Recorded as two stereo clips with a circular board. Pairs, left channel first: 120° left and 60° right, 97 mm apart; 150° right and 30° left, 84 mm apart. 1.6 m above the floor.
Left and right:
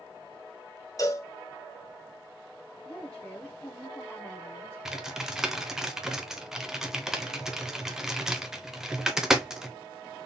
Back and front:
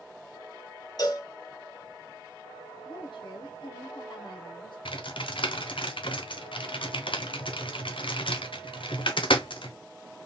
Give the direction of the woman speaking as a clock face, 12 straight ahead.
5 o'clock.